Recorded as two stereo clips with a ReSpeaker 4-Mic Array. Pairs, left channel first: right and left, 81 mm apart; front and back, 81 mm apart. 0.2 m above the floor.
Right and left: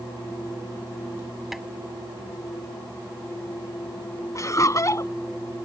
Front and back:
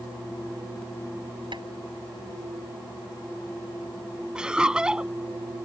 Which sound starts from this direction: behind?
Tapping, at 1.5 s.